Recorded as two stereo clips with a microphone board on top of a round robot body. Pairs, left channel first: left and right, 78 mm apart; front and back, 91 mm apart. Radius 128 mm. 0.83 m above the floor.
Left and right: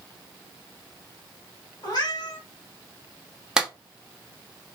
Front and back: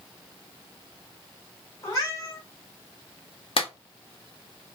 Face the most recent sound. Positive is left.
turn(degrees=-10)